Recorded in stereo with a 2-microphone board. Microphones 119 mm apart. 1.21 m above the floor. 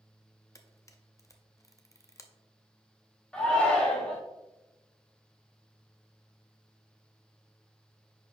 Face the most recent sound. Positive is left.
turn(degrees=10)  # may be behind; listen again after turning